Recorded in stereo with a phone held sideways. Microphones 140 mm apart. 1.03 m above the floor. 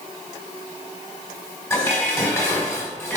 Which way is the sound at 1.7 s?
20° left (ahead or behind).